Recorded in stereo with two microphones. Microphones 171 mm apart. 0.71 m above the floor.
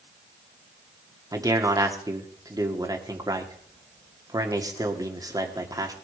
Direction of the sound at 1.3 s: 20° right (ahead or behind).